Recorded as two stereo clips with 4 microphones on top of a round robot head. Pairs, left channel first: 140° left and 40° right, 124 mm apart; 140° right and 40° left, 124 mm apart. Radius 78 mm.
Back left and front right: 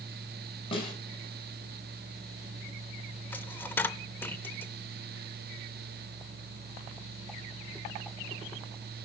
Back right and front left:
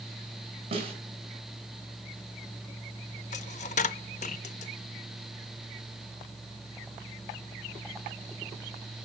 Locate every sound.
0.7 s a snare drum: 90° left, 4.5 m
3.3 s a dropped coin: 150° right, 0.5 m